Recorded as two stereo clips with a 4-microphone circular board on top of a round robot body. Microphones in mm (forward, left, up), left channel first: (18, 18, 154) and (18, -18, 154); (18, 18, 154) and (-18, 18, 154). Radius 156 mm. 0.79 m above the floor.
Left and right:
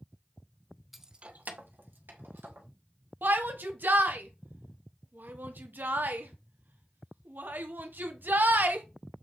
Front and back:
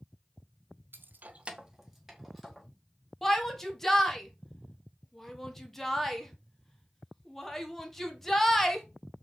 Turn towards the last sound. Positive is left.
turn(degrees=-80)